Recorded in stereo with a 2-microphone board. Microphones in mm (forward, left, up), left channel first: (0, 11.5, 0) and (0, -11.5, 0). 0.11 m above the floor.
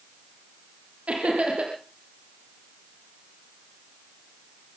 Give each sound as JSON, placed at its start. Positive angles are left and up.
{"t": 1.1, "sound": "laughter", "side_deg": -65, "distance_m": 4.0}